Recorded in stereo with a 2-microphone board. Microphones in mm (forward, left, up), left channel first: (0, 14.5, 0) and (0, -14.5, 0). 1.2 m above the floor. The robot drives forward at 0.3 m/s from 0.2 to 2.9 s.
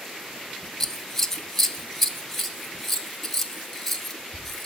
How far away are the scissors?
About 0.6 m.